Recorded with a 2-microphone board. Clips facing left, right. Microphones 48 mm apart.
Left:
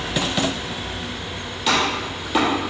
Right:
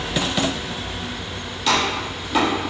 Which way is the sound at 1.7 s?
5° left (ahead or behind).